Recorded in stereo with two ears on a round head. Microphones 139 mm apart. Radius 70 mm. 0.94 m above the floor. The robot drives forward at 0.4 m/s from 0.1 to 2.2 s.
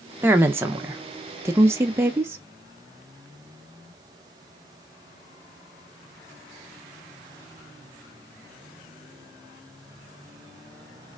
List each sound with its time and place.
0.2 s a woman speaking: 15° right (ahead or behind), 0.9 m